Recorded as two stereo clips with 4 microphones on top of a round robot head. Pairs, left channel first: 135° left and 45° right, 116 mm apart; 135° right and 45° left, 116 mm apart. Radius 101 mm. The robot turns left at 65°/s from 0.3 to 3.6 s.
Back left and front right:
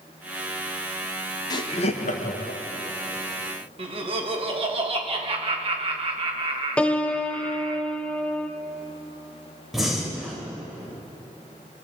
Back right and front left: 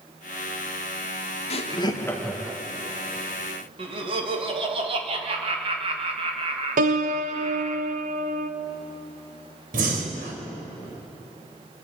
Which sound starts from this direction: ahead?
Laughter, at 3.8 s.